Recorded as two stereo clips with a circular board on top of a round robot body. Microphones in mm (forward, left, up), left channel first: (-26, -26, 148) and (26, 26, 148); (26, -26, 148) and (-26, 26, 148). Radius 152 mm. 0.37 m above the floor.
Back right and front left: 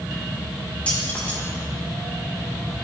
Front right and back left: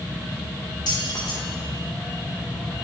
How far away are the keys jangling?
About 2.5 m.